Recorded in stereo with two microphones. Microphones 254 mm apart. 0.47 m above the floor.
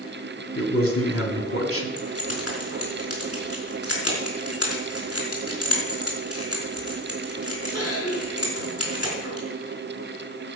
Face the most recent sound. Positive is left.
turn(degrees=65)  # may be behind; listen again after turning